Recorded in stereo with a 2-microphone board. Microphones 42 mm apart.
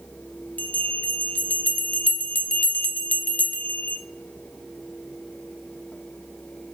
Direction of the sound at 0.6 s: 45° left (ahead or behind).